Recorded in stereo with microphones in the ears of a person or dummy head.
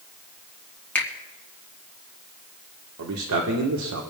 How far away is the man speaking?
About 1.4 m.